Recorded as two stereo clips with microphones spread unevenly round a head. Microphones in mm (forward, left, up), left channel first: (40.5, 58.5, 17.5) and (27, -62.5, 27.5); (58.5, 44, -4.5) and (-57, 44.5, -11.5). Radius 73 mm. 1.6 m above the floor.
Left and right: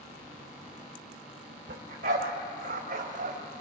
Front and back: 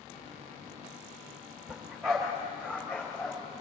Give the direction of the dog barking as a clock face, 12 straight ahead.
3 o'clock.